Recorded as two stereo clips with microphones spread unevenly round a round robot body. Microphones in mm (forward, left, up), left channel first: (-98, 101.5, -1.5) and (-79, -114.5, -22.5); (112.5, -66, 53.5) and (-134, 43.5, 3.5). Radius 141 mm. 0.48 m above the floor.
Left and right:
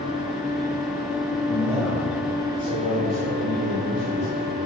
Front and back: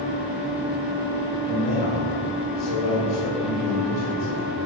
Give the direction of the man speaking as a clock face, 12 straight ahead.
12 o'clock.